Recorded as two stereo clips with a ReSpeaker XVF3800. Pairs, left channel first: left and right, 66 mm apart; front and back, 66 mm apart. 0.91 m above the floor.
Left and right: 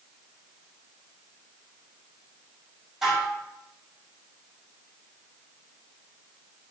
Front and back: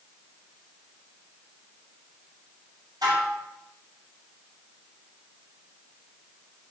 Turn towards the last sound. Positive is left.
turn(degrees=-170)